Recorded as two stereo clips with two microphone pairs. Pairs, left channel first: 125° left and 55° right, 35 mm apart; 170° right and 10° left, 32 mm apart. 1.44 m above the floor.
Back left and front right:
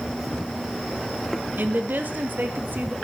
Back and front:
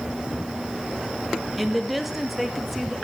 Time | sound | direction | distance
1.6 | a woman speaking | 75° right | 2 m